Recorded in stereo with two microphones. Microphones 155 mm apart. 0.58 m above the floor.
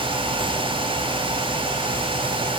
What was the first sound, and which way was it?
Only background noise.